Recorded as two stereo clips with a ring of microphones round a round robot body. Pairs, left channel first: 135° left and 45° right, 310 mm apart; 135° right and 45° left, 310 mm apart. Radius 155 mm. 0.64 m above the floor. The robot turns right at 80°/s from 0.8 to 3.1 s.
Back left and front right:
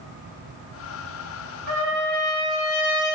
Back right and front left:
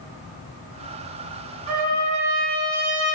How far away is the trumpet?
About 2.5 m.